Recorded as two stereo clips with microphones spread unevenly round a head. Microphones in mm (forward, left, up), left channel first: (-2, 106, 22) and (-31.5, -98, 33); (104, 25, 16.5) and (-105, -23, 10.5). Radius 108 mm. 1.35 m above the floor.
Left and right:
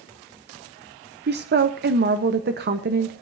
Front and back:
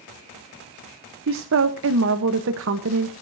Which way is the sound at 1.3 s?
140° right.